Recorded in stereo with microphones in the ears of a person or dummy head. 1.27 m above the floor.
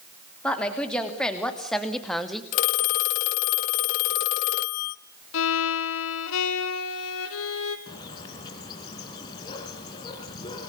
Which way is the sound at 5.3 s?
75° left (ahead or behind).